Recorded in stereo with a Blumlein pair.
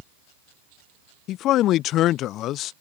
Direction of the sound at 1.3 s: 35° left.